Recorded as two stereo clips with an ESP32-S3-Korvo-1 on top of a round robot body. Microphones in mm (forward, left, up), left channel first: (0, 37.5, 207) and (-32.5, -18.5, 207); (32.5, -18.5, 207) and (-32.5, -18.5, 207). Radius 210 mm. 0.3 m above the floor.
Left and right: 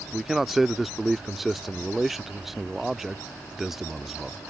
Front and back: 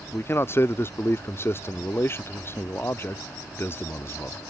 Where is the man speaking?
35° right.